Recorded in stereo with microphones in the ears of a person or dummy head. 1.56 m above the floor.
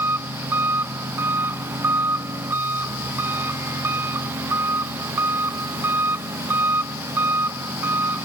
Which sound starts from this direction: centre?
An engine running, at 0.0 s.